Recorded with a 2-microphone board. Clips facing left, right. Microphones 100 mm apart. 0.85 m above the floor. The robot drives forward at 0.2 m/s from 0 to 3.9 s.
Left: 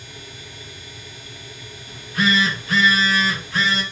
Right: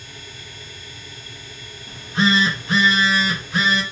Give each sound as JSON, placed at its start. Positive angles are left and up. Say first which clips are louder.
{"t": 1.9, "sound": "a phone buzzing", "louder": "right 2 dB", "side_deg": -30, "distance_m": 0.7}